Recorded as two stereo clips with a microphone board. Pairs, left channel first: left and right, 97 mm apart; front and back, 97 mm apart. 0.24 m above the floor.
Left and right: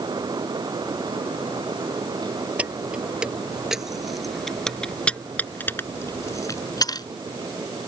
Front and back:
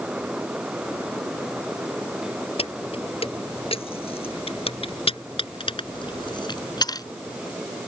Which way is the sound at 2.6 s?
15° right.